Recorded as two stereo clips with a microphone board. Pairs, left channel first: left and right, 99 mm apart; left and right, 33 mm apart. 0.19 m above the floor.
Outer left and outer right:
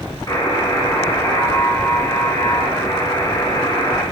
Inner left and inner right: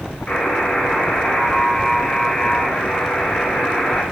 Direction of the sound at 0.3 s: 35° left (ahead or behind).